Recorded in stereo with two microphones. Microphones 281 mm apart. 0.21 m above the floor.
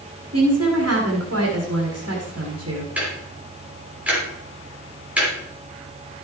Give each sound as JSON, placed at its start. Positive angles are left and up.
{"t": 0.3, "sound": "a woman speaking", "side_deg": -55, "distance_m": 1.8}
{"t": 3.0, "sound": "ticking", "side_deg": -5, "distance_m": 4.0}